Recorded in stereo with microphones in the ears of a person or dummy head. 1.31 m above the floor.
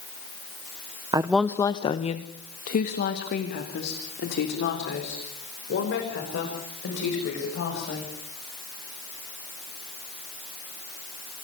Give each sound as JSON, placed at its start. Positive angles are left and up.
{"t": 1.1, "sound": "a woman speaking", "side_deg": -25, "distance_m": 0.7}